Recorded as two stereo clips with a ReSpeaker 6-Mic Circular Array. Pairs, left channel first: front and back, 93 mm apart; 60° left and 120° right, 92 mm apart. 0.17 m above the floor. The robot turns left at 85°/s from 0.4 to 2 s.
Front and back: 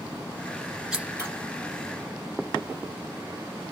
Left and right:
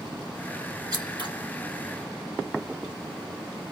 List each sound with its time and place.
0.9 s scissors: 95° right, 1.4 m; by 1.3 s 130° right, 1.4 m